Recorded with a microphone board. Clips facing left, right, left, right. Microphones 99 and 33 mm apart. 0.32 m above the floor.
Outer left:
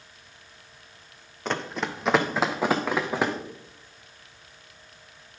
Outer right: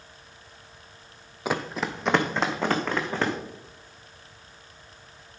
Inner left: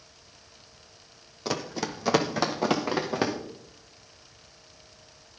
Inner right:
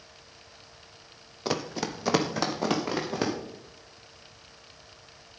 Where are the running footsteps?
10° right (ahead or behind), 1.0 m; by 3.3 s 10° left (ahead or behind), 2 m.